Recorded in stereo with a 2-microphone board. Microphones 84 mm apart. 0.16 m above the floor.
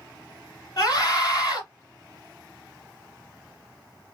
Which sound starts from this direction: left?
A scream, at 0.8 s.